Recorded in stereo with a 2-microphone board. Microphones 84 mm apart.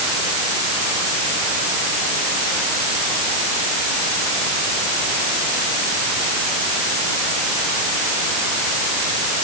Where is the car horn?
No car horn in this recording.